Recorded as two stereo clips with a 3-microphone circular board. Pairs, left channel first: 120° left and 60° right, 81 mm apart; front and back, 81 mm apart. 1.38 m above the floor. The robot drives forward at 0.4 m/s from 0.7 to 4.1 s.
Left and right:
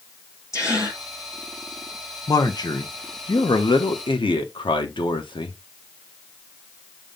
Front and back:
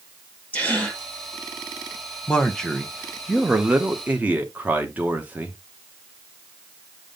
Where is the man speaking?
80° left, 1.3 m; by 5.6 s 110° left, 1.4 m.